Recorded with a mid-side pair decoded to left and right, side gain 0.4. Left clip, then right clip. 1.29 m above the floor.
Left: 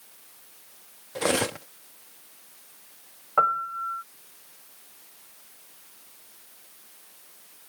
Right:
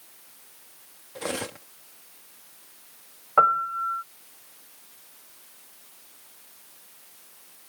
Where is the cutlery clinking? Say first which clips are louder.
Left 7 dB; 55° left.